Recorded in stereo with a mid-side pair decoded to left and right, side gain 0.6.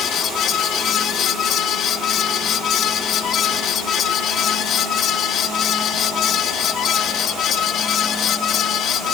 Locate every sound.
0.0 s a fan: 50° left